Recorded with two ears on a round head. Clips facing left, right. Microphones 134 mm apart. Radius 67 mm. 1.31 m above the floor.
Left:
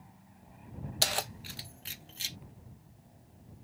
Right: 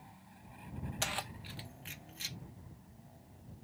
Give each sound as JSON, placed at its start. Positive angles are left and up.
{"t": 1.0, "sound": "keys jangling", "side_deg": 40}